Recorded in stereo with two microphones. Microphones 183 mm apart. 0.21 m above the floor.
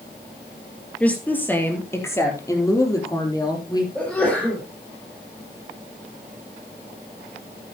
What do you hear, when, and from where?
1.0 s a woman speaking: 10° left (ahead or behind), 4 m; by 3.9 s 25° left (ahead or behind), 5.5 m
4.0 s a sneeze: 5° left (ahead or behind), 4.5 m